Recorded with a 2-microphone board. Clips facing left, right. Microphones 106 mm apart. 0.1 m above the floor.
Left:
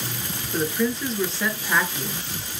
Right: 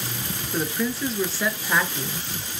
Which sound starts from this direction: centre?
A woman speaking, at 0.5 s.